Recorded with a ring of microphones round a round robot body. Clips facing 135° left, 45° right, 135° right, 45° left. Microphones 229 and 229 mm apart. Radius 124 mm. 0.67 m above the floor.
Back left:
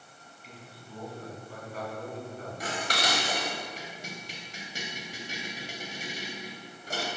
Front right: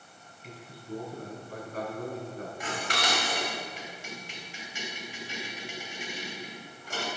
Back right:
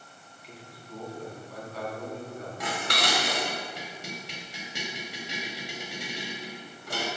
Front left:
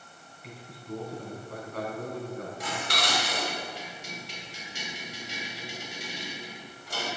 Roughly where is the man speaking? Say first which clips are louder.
Front right 7 dB, front left 6 dB; ahead.